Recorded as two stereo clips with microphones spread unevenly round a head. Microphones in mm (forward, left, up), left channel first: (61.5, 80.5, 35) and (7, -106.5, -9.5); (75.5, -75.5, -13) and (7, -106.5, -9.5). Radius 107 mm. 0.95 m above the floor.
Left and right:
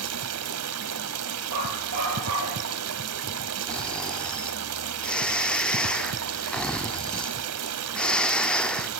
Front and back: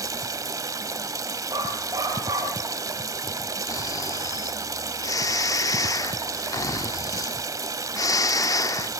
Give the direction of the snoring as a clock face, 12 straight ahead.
12 o'clock.